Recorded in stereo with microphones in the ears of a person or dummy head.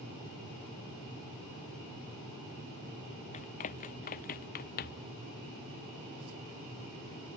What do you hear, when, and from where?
3.3 s running footsteps: 40° left (ahead or behind); by 5.1 s 50° left (ahead or behind)